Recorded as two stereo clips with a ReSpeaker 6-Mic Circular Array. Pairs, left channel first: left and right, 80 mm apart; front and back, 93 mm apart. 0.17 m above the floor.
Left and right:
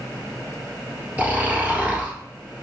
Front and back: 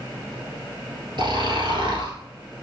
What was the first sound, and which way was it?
Snoring, 155° right.